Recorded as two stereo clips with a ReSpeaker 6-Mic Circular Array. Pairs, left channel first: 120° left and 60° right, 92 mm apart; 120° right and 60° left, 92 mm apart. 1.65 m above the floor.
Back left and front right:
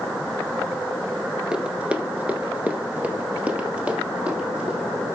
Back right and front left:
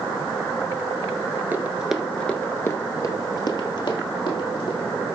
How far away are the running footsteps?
About 1.9 m.